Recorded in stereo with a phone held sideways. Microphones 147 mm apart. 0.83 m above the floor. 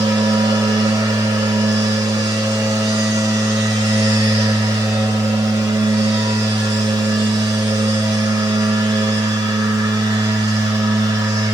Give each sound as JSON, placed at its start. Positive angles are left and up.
{"t": 0.0, "sound": "a machine running", "side_deg": -30, "distance_m": 2.5}